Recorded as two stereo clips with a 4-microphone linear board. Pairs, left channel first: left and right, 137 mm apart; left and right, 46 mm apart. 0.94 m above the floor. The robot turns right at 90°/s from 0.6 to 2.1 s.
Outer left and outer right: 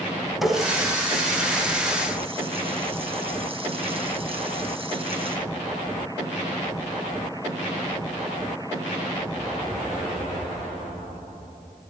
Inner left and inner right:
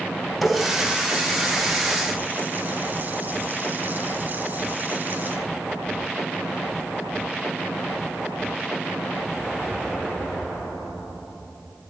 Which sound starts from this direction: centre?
A running tap, at 0.4 s.